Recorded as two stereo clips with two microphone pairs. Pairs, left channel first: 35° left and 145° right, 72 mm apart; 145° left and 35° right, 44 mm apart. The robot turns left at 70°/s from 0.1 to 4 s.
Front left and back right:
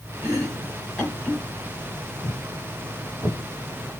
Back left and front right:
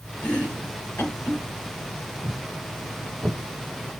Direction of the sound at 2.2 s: 30° left.